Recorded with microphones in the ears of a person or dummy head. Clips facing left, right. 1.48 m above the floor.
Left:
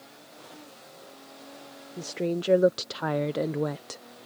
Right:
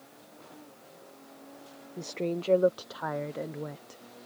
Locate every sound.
2.0 s a woman speaking: 5° left (ahead or behind); by 4.0 s 70° left (ahead or behind)